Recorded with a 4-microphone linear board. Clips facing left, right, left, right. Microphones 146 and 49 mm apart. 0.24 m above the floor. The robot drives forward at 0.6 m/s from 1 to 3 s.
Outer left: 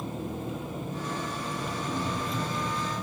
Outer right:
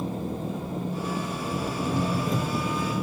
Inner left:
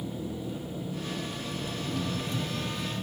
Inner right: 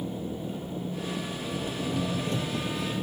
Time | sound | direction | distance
0.0 | an engine running | 30° right (ahead or behind) | 3 m